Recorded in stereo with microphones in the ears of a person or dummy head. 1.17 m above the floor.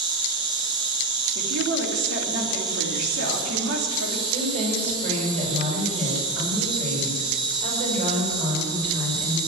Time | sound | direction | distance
0.0 | an insect | 25° right (ahead or behind) | 2.5 m
1.4 | a woman speaking | 80° right | 3 m
4.3 | a woman speaking | 35° right (ahead or behind) | 6.5 m